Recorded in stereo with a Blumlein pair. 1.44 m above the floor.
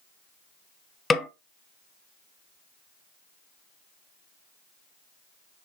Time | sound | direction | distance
1.1 | a snare drum | 10° left | 0.5 m